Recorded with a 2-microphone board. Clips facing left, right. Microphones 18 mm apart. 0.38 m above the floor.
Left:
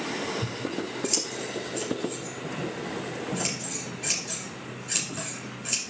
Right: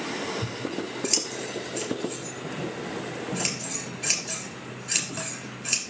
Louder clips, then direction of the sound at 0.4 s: Even; 25° right (ahead or behind).